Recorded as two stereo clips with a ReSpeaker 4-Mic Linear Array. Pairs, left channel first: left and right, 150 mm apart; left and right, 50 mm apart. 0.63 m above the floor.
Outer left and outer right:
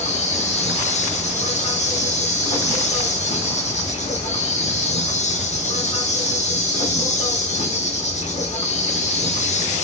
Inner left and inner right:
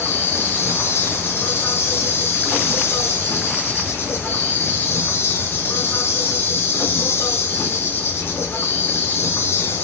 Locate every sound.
0.0 s an insect: 50° left (ahead or behind), 0.8 m